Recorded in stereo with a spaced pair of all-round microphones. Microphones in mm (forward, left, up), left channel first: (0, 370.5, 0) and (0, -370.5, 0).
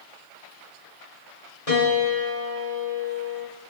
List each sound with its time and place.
1.7 s a piano: 50° left (ahead or behind), 3.5 m